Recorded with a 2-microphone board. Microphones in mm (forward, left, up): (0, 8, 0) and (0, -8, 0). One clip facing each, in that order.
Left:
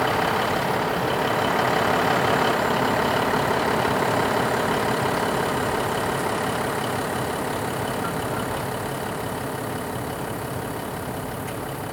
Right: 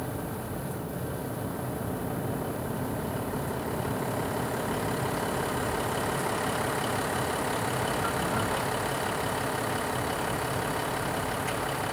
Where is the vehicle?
85° left; by 11.9 s 15° right (ahead or behind).